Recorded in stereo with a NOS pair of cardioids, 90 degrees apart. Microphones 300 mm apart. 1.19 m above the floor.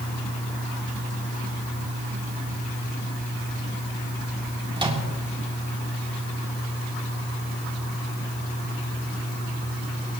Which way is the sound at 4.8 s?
15° right.